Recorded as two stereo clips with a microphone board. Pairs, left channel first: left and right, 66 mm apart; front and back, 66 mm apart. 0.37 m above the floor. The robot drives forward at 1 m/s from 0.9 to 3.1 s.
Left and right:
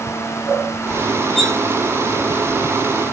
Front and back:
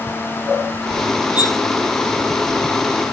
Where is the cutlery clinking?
5° left, 3 m.